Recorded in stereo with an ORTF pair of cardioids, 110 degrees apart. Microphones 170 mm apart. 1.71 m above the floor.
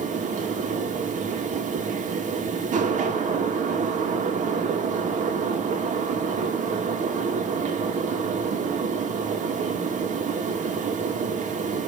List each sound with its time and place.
0.0 s a fan: 50° right, 2 m